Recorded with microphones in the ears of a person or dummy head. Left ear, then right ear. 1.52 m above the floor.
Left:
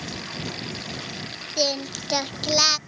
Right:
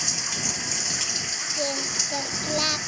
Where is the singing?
35° left (ahead or behind).